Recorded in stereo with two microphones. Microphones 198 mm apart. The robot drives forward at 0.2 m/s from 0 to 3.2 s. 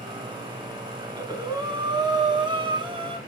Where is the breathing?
20° right (ahead or behind), 0.7 m; by 3.2 s 25° right (ahead or behind), 0.5 m.